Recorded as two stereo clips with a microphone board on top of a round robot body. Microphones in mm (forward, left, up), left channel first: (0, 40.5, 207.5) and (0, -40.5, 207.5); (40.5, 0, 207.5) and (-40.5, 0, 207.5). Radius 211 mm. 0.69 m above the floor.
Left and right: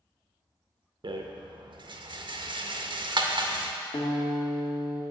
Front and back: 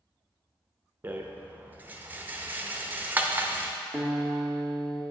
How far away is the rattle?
About 0.6 m.